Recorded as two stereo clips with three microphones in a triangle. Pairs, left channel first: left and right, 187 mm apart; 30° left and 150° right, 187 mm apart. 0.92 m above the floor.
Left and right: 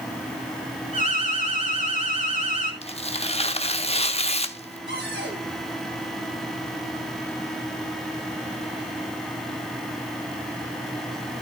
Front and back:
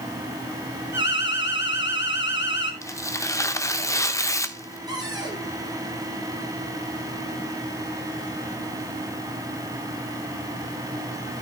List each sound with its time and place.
0.9 s an alarm: 45° left, 3 m
2.8 s tearing paper: 90° left, 1.0 m
4.9 s a cupboard door: 80° right, 9.5 m